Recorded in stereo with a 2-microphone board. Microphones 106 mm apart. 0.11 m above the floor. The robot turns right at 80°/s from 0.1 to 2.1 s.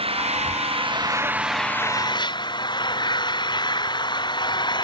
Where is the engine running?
115° right; by 4.8 s 45° left.